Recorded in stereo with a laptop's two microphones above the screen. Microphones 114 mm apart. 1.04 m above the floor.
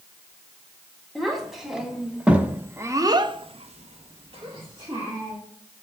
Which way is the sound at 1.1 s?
Centre (ahead or behind).